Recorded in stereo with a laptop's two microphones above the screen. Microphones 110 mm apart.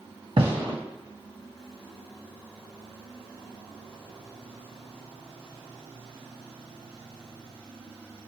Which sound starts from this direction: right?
A gunshot, at 0.4 s.